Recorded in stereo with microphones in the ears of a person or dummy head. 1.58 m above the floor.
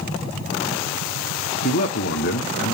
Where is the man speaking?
45° left (ahead or behind), 0.7 m; by 2.7 s 75° left (ahead or behind), 1.0 m.